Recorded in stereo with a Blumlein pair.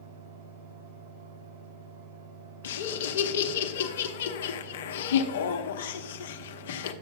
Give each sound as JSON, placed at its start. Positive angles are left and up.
{"t": 0.0, "sound": "a fan", "azimuth_deg": -50, "distance_m": 3.5}
{"t": 2.6, "sound": "laughter", "azimuth_deg": 60, "distance_m": 0.7}